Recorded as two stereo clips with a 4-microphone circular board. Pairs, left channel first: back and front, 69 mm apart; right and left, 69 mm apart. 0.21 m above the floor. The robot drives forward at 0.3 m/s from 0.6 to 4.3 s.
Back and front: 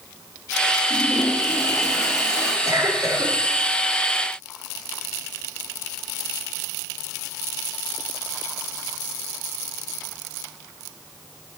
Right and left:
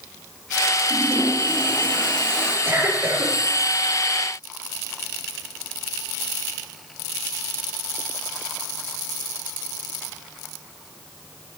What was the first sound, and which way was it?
A toilet flushing, 160° right.